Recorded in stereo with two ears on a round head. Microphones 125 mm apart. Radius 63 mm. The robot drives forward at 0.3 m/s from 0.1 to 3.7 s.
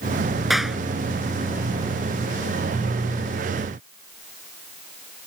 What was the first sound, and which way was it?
A clap, centre (ahead or behind).